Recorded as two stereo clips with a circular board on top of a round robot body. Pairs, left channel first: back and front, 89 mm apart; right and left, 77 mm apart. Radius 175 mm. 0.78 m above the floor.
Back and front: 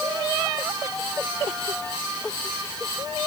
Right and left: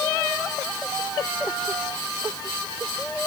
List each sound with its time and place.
Only background noise.